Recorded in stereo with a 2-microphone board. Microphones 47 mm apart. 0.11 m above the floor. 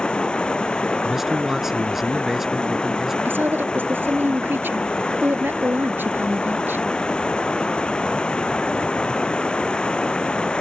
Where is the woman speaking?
50° right (ahead or behind).